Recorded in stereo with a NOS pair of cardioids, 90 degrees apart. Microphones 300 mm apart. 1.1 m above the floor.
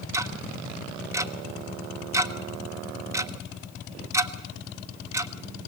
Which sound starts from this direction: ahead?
Ticking, at 0.1 s.